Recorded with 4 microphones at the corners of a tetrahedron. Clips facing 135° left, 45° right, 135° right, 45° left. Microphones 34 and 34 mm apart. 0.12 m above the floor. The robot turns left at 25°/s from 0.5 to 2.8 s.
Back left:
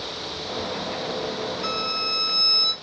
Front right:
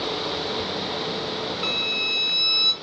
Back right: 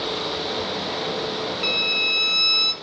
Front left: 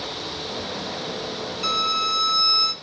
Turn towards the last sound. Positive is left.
turn(degrees=-100)